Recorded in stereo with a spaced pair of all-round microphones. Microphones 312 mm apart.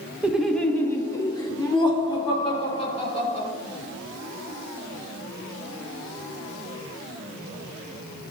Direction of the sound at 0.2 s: 5° right (ahead or behind).